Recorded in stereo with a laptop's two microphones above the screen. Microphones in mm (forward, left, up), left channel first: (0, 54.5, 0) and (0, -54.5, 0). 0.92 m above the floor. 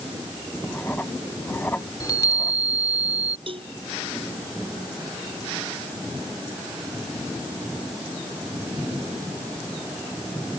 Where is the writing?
20° left (ahead or behind).